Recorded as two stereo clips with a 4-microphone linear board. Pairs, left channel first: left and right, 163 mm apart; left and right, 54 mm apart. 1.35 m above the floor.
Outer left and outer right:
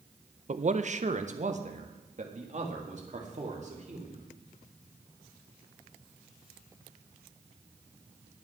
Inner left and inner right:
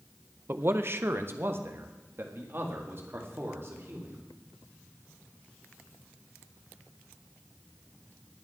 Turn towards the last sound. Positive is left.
turn(degrees=-45)  # may be behind; listen again after turning